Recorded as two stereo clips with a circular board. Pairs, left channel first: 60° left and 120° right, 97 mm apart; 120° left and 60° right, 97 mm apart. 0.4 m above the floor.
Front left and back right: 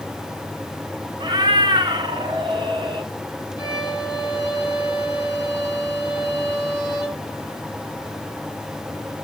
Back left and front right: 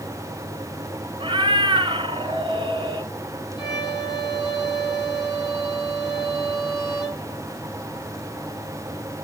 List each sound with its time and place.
1.2 s a cat meowing: 90° right, 1.6 m
3.6 s a violin: 165° left, 6 m